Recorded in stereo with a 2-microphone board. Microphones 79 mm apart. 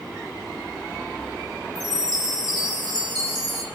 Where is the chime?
85° right, 3 m.